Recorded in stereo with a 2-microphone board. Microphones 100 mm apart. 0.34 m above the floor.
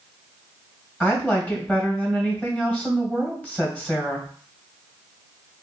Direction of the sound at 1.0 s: 20° left (ahead or behind).